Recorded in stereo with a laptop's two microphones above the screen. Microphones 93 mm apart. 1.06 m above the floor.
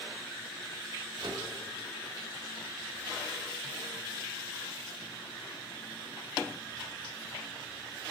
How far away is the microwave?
About 1.6 m.